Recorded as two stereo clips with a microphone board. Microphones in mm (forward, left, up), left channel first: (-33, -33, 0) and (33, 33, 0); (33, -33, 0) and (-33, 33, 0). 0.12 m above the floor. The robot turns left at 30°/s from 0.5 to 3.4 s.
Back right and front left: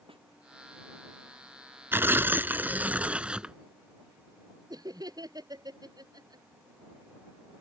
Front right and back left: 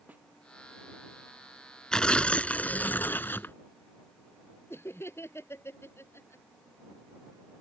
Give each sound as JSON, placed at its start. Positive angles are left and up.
{"t": 0.1, "sound": "a snare drum", "azimuth_deg": 60}
{"t": 1.9, "sound": "tearing paper", "azimuth_deg": 25}
{"t": 4.7, "sound": "laughter", "azimuth_deg": 10}